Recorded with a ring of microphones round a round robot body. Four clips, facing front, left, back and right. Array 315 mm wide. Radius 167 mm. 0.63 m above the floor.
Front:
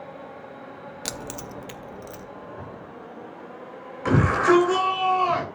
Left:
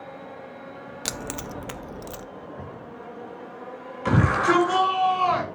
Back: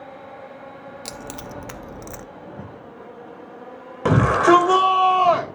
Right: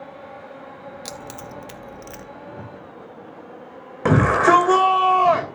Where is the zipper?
160° right, 6 m.